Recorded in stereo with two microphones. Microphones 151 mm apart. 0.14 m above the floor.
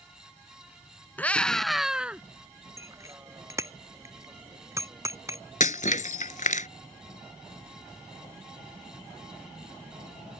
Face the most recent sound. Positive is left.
turn(degrees=60)  # may be behind; listen again after turning